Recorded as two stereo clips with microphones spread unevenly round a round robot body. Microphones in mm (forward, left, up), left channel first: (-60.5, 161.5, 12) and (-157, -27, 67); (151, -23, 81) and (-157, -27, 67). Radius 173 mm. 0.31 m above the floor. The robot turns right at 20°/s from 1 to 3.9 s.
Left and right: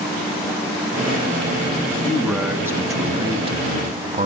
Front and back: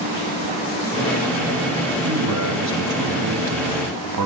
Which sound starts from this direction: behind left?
A man speaking, at 1.9 s.